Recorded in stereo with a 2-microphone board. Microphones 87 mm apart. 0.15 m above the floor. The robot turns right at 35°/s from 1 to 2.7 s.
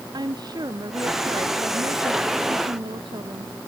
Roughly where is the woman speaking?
Behind right.